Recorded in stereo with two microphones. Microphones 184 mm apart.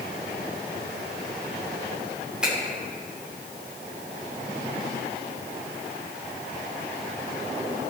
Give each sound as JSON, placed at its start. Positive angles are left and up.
{"t": 2.4, "sound": "a finger snap", "side_deg": -5, "distance_m": 3.5}